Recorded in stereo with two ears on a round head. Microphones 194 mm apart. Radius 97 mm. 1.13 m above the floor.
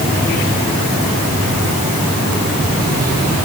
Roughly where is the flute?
I don't hear a flute.